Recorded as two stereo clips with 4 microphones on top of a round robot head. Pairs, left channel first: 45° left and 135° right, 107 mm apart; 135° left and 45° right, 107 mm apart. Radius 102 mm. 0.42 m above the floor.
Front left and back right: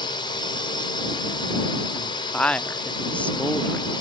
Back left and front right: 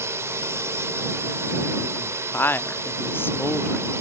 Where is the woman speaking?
105° left.